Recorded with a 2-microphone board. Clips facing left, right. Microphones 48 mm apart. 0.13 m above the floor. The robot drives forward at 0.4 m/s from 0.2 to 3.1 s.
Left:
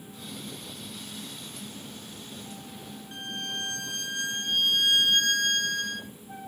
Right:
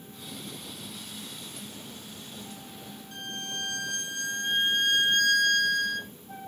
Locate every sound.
3.1 s a violin: 35° left (ahead or behind), 1.0 m